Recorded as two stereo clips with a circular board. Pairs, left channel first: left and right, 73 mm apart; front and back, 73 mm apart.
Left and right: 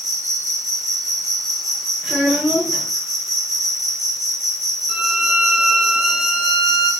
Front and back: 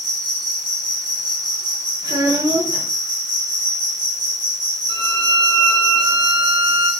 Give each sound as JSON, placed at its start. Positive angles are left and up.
{"t": 0.0, "sound": "an insect", "azimuth_deg": 180, "distance_m": 9.5}
{"t": 2.0, "sound": "a child speaking", "azimuth_deg": -175, "distance_m": 5.5}
{"t": 4.9, "sound": "a violin", "azimuth_deg": -165, "distance_m": 4.0}